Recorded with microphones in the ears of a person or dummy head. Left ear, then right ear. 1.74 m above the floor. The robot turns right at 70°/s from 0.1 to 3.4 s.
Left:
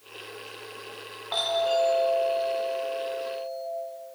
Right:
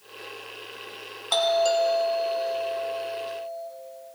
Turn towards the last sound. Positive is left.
turn(degrees=30)